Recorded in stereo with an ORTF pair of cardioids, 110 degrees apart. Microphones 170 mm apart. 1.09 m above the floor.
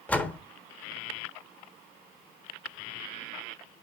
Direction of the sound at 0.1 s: 5° left.